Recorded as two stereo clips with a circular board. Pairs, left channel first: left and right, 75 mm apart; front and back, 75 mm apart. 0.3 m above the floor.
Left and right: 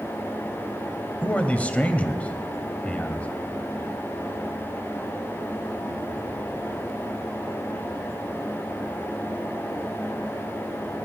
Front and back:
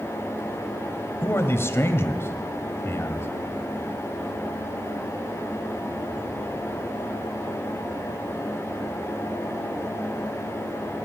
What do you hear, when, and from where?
1.2 s a man speaking: 30° left, 1.2 m